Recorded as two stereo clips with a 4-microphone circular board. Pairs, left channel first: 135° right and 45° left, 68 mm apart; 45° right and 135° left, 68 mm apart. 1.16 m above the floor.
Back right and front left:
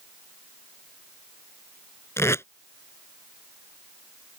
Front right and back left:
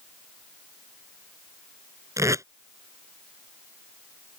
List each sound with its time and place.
2.2 s tape being pulled: 175° left